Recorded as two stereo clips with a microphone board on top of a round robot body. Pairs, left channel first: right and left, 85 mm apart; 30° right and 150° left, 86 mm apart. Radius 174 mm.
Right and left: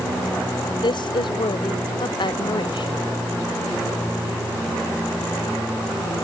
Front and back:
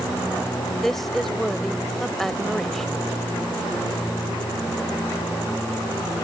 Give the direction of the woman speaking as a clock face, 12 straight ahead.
4 o'clock.